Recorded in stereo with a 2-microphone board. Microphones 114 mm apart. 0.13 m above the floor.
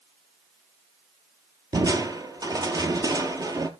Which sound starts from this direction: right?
Crushing, at 1.7 s.